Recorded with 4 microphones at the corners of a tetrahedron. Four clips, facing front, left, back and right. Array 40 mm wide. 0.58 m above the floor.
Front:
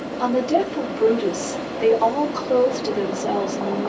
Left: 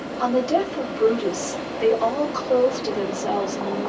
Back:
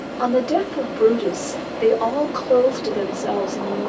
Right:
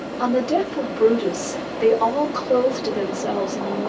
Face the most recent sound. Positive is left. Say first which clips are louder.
# right 1 dB, back 1 dB
turn(degrees=-160)